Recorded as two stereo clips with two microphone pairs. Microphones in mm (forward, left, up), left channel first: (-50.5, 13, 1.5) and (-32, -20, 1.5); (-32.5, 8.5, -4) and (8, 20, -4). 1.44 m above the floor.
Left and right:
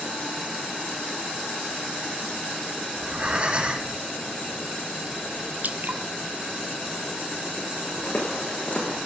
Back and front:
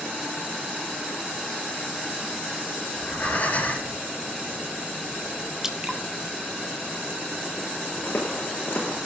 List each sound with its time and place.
2.9 s breathing: 120° right, 7.5 m
5.6 s dripping: 60° right, 1.5 m
8.0 s footsteps: 165° left, 7.5 m